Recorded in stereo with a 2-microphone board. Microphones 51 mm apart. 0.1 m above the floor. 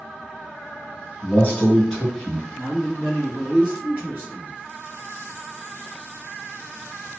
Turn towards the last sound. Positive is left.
turn(degrees=-30)  # may be behind; listen again after turning